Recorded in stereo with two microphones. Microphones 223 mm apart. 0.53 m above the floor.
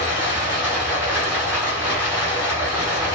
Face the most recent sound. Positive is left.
turn(degrees=-10)  # may be behind; listen again after turning